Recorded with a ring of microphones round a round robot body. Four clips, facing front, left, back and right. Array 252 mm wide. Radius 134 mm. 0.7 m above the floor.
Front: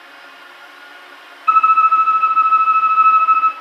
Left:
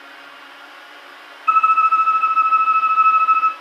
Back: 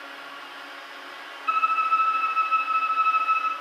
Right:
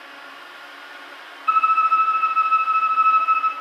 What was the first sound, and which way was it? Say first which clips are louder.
A violin: left 3 dB, front 11 dB; 15° left.